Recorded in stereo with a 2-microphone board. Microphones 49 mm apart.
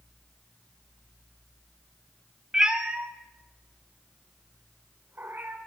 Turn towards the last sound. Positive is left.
turn(degrees=-40)  # may be behind; listen again after turning